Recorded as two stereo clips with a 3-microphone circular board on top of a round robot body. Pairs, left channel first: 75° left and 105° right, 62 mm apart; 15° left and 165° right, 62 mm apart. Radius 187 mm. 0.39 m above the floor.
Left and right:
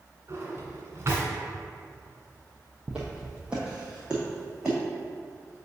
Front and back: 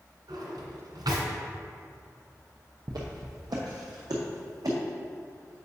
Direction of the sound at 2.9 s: Straight behind.